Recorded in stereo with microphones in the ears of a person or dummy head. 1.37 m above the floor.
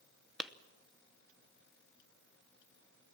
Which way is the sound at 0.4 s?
5° left (ahead or behind).